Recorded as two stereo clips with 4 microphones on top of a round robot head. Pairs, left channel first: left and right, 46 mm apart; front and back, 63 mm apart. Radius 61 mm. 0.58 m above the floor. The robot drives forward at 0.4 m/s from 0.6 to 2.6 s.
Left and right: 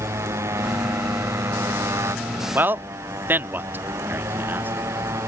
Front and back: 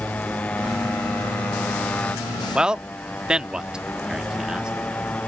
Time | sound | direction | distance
0.0 | a motorcycle | 75° right | ?
2.5 | a man speaking | 105° right | ?